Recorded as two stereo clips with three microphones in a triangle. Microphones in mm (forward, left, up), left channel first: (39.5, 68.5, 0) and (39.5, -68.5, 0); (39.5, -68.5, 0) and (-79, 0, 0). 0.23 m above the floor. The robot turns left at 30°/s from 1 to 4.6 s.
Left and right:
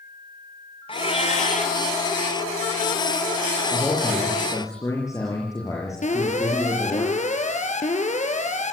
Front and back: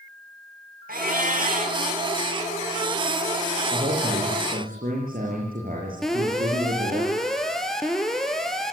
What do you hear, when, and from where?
0.9 s a cat meowing: 140° left, 3 m; by 1.8 s 120° left, 3 m
3.7 s a man speaking: 175° right, 6.5 m; by 7.0 s 160° left, 6.5 m
6.0 s an alarm: 55° left, 3 m